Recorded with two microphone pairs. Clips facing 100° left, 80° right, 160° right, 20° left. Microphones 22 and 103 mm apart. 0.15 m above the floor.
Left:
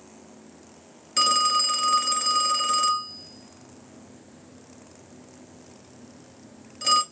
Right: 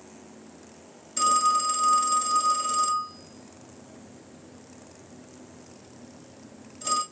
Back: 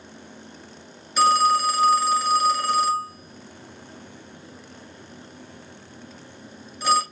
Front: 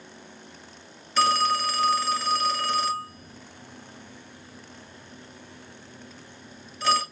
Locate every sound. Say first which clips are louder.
1.2 s a phone ringing: left 1 dB, back 4 dB; 125° left, 1.5 m